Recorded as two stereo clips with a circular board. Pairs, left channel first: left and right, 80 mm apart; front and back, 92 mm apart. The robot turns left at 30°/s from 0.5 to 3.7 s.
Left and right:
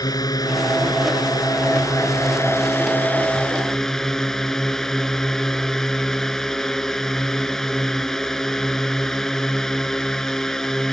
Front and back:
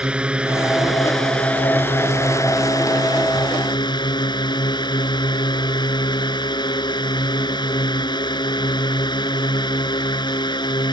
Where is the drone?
105° left; by 10.9 s 10° left.